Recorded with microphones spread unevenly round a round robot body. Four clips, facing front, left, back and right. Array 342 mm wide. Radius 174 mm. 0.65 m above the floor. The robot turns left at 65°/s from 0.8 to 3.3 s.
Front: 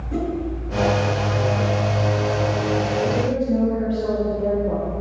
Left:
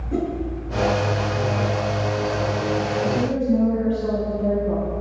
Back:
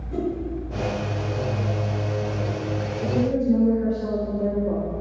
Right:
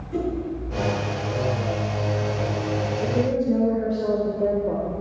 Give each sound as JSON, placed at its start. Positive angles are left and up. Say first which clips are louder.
{"t": 0.1, "sound": "a whoosh", "louder": "left 2 dB, front 1 dB", "azimuth_deg": 75, "distance_m": 6.5}
{"t": 3.0, "sound": "a woman speaking", "louder": "right 2 dB, front 1 dB", "azimuth_deg": -50, "distance_m": 3.0}